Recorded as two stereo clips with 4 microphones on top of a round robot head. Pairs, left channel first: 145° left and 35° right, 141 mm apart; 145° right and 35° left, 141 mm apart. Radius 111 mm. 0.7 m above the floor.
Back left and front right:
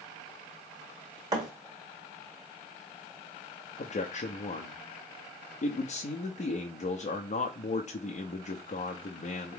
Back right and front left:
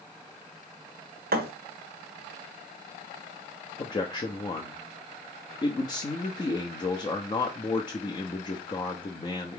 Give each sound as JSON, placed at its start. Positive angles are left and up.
{"t": 1.3, "sound": "a thud", "azimuth_deg": 30, "distance_m": 1.2}
{"t": 3.8, "sound": "a man speaking", "azimuth_deg": 160, "distance_m": 0.8}